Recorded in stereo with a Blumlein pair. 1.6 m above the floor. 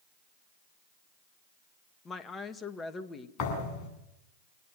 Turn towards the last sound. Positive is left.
turn(degrees=30)